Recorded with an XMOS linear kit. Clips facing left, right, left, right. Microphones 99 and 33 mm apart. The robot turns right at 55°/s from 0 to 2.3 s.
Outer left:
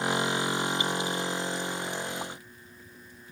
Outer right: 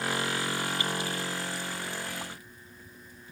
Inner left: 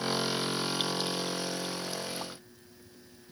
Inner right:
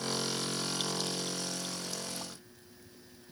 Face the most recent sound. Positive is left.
No sound to turn to.